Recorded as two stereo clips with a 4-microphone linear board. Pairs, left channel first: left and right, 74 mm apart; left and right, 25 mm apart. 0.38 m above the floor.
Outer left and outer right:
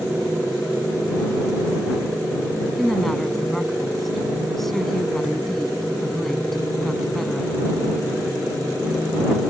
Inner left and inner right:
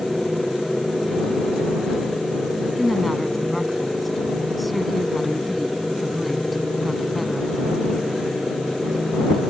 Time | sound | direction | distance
2.8 | a woman speaking | 5° left (ahead or behind) | ?